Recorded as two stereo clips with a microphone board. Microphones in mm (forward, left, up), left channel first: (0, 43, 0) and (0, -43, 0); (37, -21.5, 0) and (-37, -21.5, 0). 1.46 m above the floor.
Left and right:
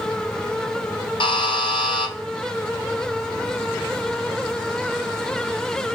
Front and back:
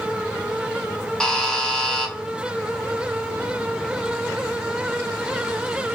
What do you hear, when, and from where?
1.2 s a buzzer: 80° left, 0.5 m